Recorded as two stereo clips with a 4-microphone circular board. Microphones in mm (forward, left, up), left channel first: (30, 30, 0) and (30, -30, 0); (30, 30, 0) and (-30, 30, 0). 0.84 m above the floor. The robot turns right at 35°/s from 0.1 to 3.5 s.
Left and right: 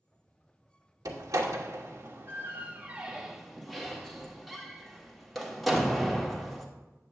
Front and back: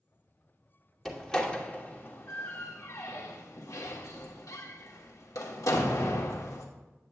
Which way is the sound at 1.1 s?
85° right.